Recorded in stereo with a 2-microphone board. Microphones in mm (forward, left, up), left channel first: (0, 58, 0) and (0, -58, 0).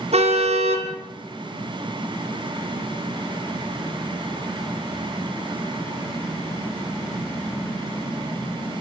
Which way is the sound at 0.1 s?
65° right (ahead or behind).